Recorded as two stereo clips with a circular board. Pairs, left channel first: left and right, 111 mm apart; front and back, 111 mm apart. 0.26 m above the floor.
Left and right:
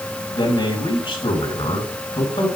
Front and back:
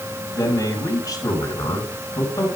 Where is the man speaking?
55° left, 3.5 m.